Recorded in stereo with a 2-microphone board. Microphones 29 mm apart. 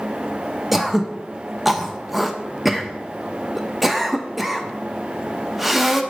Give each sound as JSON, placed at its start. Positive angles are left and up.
{"t": 0.7, "sound": "throat clearing", "side_deg": -5, "distance_m": 0.8}